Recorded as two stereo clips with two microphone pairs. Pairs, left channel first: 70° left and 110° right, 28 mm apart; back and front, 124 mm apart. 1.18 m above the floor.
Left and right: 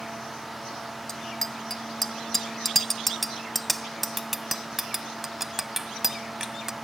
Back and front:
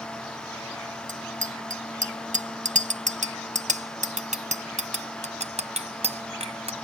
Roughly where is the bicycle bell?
Ahead.